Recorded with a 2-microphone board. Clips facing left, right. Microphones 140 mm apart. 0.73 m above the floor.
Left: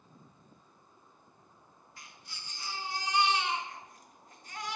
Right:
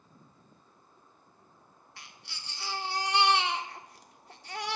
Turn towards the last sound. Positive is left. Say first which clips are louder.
# right 1 dB
turn(degrees=-75)  # may be behind; listen again after turning